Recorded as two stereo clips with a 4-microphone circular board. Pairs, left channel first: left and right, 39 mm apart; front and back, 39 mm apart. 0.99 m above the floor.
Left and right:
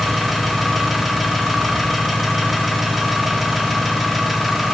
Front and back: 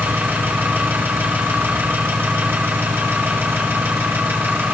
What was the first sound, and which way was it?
An engine running, 175° right.